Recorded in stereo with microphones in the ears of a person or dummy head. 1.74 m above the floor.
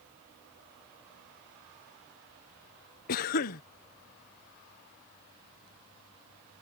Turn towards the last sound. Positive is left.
turn(degrees=45)  # may be behind; listen again after turning